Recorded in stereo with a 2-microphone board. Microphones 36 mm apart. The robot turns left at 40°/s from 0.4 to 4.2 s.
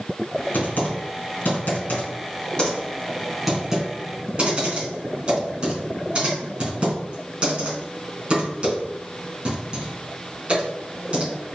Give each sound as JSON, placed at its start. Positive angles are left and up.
{"t": 0.5, "sound": "typing on a keyboard", "side_deg": 60, "distance_m": 2.5}